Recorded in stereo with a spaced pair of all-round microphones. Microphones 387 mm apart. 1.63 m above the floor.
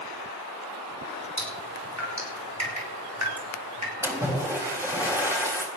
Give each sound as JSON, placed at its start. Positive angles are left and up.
{"t": 1.4, "sound": "dripping", "side_deg": -45, "distance_m": 7.5}
{"t": 4.0, "sound": "a splash", "side_deg": -5, "distance_m": 6.0}